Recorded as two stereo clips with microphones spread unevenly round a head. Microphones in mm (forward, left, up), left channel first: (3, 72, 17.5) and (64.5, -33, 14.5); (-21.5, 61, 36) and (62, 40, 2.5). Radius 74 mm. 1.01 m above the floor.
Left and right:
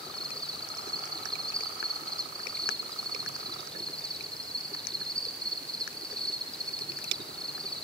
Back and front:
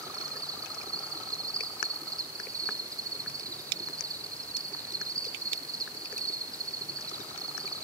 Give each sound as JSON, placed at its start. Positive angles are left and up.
{"t": 0.0, "sound": "an insect", "azimuth_deg": 40, "distance_m": 2.5}